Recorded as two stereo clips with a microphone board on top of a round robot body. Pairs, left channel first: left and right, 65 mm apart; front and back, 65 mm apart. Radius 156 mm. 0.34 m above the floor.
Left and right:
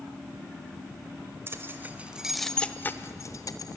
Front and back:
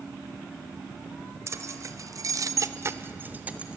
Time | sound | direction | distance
1.5 | keys jangling | 140° right | 1.6 m